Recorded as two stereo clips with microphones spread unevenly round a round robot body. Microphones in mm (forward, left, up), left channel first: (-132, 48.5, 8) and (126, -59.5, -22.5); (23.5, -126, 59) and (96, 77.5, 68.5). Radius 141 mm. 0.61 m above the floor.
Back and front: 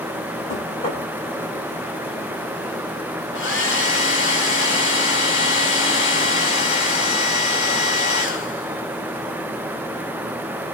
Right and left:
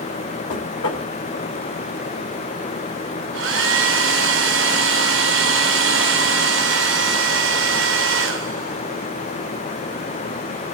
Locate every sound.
0.5 s knocking: 135° right, 3 m
3.3 s a hair dryer: 105° left, 2.5 m